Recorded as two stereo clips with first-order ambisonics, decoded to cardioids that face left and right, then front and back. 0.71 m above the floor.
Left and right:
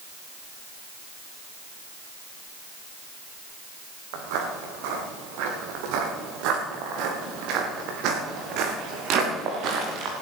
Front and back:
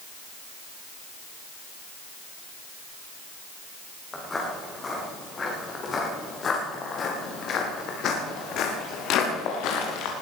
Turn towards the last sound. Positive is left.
turn(degrees=-35)